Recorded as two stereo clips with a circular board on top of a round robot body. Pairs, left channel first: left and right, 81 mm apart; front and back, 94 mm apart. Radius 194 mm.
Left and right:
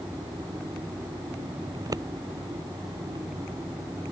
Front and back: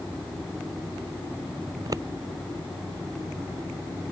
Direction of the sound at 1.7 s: 130° right.